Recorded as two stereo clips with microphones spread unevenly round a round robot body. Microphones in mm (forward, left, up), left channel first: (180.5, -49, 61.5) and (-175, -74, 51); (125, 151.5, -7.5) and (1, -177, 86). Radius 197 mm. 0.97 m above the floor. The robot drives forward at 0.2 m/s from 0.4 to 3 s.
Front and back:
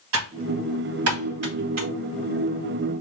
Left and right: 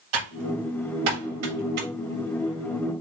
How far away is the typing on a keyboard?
About 2 m.